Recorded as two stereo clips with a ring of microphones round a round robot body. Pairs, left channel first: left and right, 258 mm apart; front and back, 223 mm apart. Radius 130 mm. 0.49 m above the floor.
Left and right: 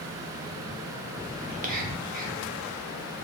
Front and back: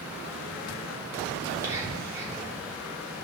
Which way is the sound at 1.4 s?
110° right.